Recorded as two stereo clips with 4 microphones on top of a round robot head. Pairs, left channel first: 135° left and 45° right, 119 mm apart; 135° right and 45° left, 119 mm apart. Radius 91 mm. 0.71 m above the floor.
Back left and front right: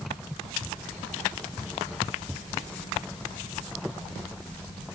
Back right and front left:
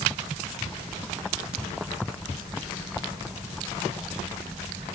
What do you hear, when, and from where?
Only background noise.